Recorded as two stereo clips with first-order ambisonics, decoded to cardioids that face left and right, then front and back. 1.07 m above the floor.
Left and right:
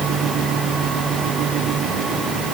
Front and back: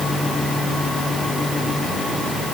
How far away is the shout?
No shout in this recording.